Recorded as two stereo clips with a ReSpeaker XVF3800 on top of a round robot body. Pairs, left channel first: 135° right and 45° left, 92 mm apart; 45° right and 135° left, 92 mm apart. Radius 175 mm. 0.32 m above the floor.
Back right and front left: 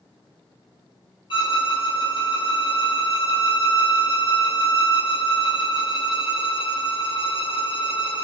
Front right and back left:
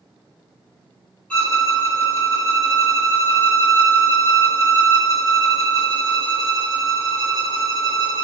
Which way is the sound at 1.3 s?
120° right.